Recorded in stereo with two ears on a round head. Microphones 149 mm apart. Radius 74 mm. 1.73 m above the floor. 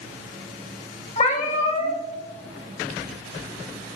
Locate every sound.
1.2 s a cat meowing: 40° left (ahead or behind), 1.4 m